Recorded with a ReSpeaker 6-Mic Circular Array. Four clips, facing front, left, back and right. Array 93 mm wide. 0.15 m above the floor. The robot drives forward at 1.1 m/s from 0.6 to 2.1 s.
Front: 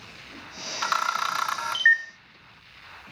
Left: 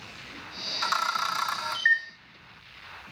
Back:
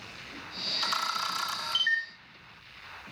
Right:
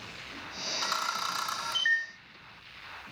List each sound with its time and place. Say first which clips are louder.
0.8 s a camera shutter: left 6 dB, front 6 dB; 15° left, 3.5 m; by 2.0 s 25° left, 2 m